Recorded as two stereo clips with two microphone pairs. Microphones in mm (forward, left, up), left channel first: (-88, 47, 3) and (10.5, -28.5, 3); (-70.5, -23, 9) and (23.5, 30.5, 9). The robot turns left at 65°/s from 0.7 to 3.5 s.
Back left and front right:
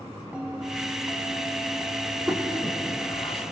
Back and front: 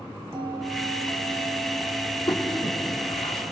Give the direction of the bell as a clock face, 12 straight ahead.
11 o'clock.